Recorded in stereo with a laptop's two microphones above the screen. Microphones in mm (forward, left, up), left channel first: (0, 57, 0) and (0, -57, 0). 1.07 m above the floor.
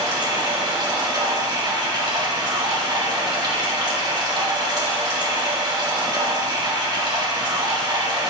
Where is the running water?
40° right (ahead or behind), 1.6 m.